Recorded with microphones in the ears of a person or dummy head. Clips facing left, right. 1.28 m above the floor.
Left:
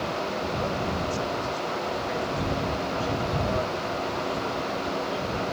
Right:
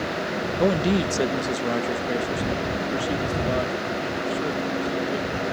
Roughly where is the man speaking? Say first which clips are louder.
Right 8 dB; right.